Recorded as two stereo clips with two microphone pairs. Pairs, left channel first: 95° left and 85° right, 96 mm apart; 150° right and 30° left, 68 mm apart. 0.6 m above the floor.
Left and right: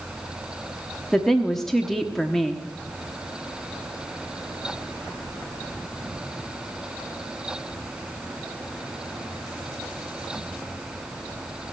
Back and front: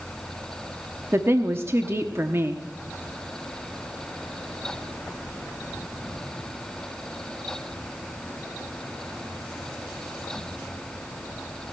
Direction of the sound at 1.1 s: 15° left.